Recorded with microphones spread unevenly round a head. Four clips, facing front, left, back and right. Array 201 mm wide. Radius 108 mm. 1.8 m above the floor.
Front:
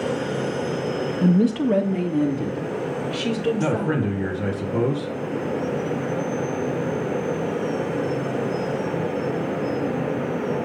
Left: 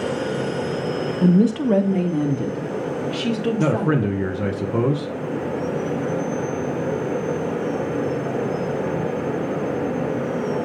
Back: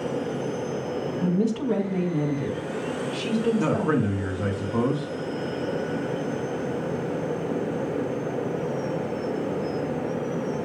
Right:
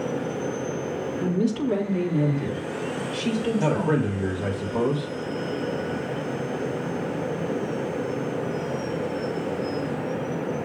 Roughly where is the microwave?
I don't hear a microwave.